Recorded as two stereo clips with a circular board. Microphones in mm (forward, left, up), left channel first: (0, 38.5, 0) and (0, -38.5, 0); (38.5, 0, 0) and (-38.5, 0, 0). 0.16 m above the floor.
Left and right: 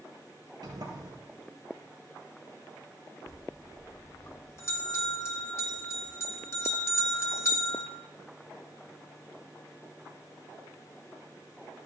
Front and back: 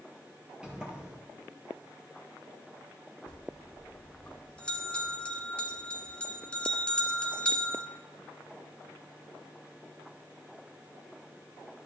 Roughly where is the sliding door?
Right.